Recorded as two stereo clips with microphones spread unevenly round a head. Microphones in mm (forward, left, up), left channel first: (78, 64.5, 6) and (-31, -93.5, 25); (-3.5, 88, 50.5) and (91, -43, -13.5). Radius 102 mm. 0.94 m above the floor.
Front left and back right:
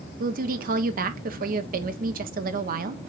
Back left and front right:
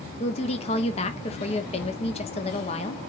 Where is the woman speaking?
165° right, 0.8 m.